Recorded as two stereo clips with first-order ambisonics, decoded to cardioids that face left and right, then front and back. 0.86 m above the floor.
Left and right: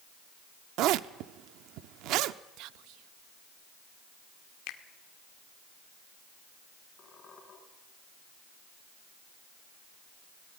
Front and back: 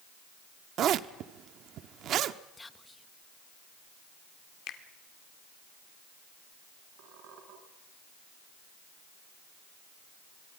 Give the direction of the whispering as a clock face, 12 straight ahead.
3 o'clock.